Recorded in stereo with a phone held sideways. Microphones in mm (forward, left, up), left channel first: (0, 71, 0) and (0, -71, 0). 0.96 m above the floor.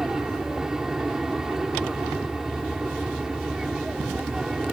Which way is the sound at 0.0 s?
5° right (ahead or behind).